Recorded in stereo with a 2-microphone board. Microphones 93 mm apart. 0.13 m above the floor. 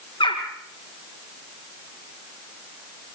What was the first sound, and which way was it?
A bird, 60° left (ahead or behind).